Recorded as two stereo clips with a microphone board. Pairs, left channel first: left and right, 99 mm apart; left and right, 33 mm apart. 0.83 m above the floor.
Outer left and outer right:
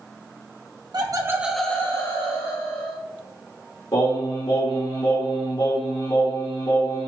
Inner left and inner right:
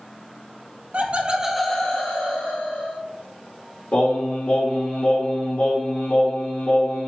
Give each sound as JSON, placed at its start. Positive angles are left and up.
{"t": 0.9, "sound": "laughter", "side_deg": -45, "distance_m": 0.9}
{"t": 3.9, "sound": "singing", "side_deg": 60, "distance_m": 1.5}